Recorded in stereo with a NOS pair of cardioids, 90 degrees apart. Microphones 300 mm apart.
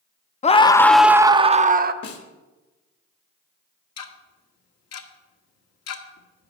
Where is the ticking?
60° left, 1.6 m.